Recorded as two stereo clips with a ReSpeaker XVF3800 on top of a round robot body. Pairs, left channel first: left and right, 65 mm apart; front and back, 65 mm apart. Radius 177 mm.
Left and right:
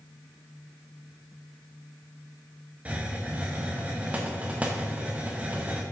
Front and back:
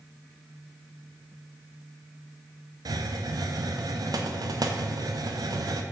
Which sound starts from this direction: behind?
A hiss, at 2.9 s.